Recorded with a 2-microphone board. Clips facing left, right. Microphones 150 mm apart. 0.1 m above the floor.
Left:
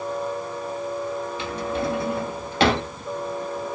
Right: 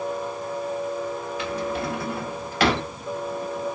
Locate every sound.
1.4 s a drawer: 25° left (ahead or behind), 1.1 m